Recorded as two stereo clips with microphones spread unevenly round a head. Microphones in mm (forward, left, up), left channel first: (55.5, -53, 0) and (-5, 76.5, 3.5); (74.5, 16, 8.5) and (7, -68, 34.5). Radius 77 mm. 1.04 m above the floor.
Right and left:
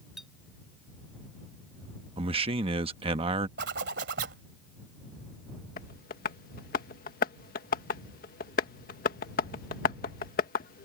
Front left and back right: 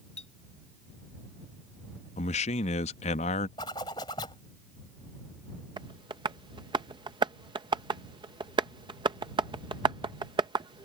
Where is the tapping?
80° right.